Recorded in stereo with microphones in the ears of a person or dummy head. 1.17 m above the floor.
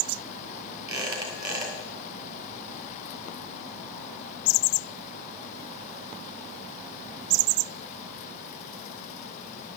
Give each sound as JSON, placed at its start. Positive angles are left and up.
{"t": 0.9, "sound": "a squeak", "side_deg": -20, "distance_m": 3.0}